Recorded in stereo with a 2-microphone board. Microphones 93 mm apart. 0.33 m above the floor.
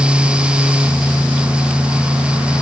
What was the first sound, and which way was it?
Only background noise.